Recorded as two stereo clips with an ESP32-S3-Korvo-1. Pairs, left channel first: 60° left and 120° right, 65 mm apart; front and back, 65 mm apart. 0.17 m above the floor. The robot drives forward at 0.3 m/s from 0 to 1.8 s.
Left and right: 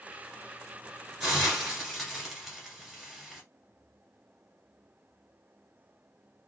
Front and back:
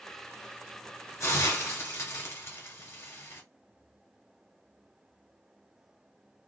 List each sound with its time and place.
1.2 s a hiss: 35° right, 1.4 m; by 3.4 s 40° right, 1.3 m